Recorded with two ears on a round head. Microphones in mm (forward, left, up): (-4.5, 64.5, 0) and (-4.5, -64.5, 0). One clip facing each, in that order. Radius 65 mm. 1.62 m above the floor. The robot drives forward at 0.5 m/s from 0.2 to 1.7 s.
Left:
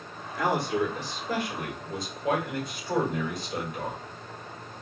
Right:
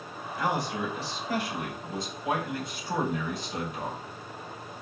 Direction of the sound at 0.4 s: 55° left (ahead or behind).